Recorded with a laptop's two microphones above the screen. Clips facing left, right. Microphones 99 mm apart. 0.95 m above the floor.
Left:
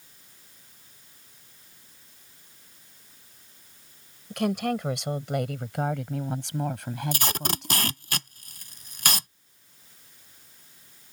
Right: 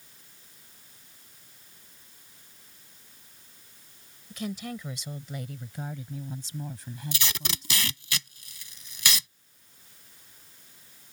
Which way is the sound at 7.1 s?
50° left (ahead or behind).